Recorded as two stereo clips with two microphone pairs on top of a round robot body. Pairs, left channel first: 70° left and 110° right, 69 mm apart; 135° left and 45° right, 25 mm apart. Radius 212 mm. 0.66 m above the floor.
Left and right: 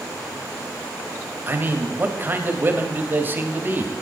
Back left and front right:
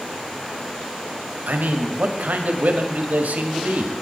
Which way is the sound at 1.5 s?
45° right.